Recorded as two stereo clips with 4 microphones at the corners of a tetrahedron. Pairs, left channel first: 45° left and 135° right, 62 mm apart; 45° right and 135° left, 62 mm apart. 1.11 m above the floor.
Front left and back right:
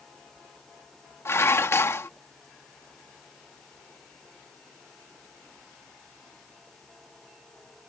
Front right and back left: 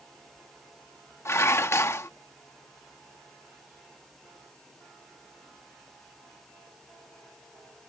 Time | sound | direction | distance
1.2 | dishes clattering | straight ahead | ?